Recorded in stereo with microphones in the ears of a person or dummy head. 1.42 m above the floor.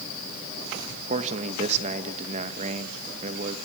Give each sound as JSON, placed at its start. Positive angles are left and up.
{"t": 1.1, "sound": "a man speaking", "side_deg": -40, "distance_m": 1.9}